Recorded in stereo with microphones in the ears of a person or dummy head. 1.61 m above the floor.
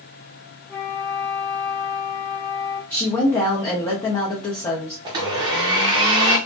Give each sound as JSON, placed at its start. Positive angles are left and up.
{"t": 0.7, "sound": "a flute", "side_deg": 10, "distance_m": 1.4}
{"t": 2.9, "sound": "a woman speaking", "side_deg": 15, "distance_m": 0.9}
{"t": 5.0, "sound": "a blender", "side_deg": -20, "distance_m": 0.8}